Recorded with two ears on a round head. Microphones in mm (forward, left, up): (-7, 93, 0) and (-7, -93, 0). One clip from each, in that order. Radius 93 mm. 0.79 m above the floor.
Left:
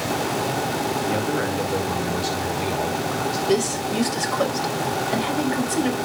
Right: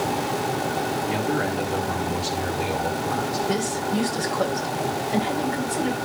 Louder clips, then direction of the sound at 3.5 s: Left 3 dB; 75° left (ahead or behind).